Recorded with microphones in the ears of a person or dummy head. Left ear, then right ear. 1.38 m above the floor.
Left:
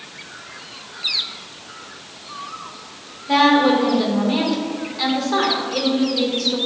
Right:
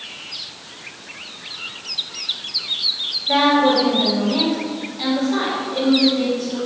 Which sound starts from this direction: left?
A woman speaking, at 3.3 s.